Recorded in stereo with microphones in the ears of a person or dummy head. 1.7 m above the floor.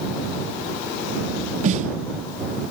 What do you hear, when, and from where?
1.6 s a snare drum: 40° right (ahead or behind)